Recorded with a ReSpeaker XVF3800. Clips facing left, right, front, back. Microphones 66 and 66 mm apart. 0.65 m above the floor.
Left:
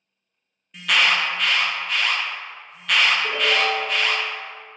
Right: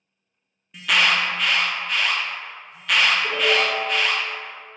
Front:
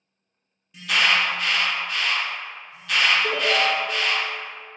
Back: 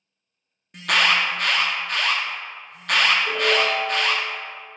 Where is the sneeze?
I don't hear a sneeze.